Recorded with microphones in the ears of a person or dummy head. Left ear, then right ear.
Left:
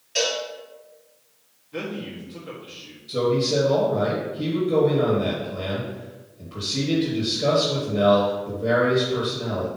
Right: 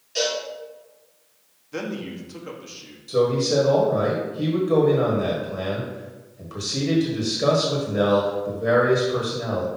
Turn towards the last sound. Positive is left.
turn(degrees=-45)  # may be behind; listen again after turning